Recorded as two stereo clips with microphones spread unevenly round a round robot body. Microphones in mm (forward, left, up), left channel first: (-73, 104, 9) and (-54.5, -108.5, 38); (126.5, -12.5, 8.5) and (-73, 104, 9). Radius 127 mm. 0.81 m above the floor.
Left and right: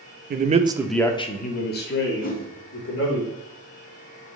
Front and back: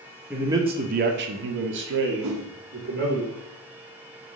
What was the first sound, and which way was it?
A man speaking, 125° right.